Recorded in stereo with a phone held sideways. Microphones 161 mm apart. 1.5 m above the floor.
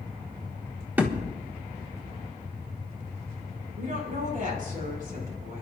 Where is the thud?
10° right (ahead or behind), 1.3 m.